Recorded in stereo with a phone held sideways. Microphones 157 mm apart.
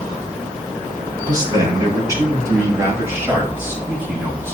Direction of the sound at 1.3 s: 25° right (ahead or behind).